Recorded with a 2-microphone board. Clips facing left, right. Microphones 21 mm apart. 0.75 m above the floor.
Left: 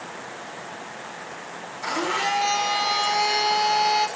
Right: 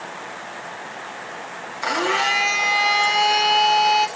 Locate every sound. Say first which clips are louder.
1.8 s a blender: right 4 dB; 65° right (ahead or behind), 2 m